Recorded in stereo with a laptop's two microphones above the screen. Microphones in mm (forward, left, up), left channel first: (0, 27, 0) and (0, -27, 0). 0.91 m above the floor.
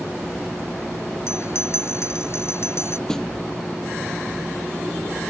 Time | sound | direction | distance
1.3 | a bell | 60° left (ahead or behind) | ?
3.1 | a snare drum | 10° left (ahead or behind) | ?